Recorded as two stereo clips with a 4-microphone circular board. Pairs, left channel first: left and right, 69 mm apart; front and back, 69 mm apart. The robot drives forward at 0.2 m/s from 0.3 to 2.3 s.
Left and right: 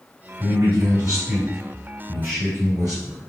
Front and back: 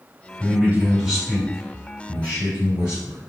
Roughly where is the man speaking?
Right.